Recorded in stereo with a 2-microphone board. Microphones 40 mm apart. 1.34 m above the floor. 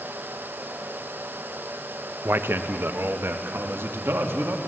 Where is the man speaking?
70° right (ahead or behind), 0.9 m; by 4.6 s 85° right, 2 m.